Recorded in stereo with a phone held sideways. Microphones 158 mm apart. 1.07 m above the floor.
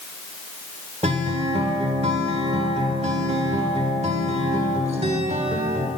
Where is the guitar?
40° right (ahead or behind), 1.5 m.